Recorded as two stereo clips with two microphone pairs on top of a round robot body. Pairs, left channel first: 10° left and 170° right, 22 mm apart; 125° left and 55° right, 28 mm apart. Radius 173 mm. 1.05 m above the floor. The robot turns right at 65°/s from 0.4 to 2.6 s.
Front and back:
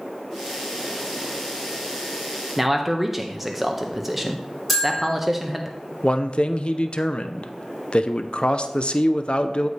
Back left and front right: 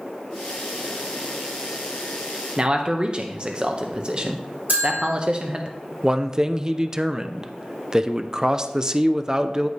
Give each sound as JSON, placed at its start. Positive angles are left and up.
{"t": 2.6, "sound": "a man speaking", "azimuth_deg": -90, "distance_m": 0.8}
{"t": 4.7, "sound": "a bell", "azimuth_deg": -75, "distance_m": 3.0}
{"t": 6.0, "sound": "a man speaking", "azimuth_deg": 10, "distance_m": 0.6}